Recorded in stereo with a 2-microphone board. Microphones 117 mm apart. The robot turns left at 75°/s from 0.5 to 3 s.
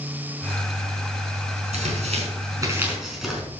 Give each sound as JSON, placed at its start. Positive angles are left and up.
{"t": 1.7, "sound": "tearing paper", "side_deg": -75, "distance_m": 4.5}